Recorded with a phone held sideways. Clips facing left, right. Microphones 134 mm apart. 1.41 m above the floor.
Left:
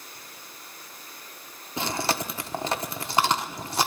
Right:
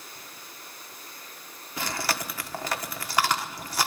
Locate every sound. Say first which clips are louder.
1.8 s chewing: left 3 dB; 25° left (ahead or behind), 1.4 m